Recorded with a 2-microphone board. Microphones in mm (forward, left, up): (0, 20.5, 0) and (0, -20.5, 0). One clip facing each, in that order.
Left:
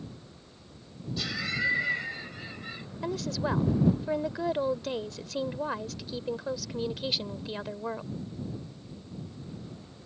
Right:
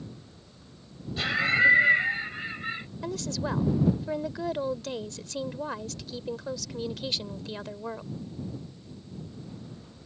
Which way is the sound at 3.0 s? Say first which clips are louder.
Left 2 dB; 10° left (ahead or behind).